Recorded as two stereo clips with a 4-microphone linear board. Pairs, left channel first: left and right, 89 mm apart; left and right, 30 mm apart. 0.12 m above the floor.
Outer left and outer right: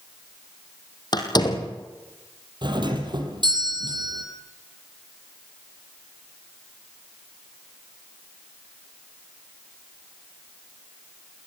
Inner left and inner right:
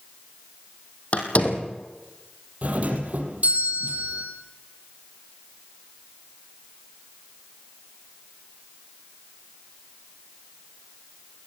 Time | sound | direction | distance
1.1 | a door slam | 50° left (ahead or behind) | 3 m
2.6 | a doorbell | 55° right (ahead or behind) | 4.5 m